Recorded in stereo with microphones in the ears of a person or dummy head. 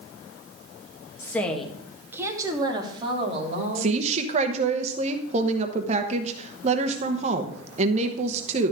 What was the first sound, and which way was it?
A woman speaking, 15° left (ahead or behind).